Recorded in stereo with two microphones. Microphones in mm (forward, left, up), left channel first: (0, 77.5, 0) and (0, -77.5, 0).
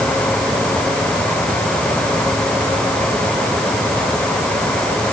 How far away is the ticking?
No ticking in this recording.